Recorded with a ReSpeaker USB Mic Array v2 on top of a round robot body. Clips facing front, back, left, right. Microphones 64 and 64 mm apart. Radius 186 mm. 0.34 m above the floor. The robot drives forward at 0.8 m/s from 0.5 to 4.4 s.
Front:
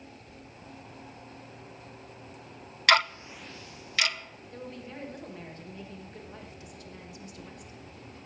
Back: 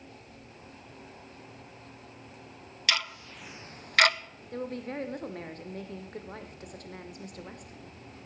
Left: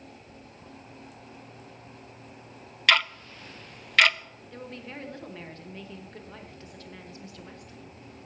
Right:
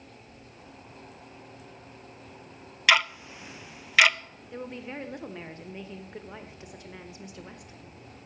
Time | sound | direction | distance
0.3 | chewing | 45° left | 2.5 m
2.9 | ticking | 10° right | 0.6 m
4.5 | a woman speaking | 160° right | 1.4 m